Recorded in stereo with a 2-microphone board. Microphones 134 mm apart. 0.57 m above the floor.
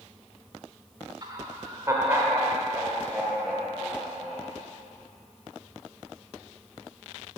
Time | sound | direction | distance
1.2 | laughter | 35° right (ahead or behind) | 2.0 m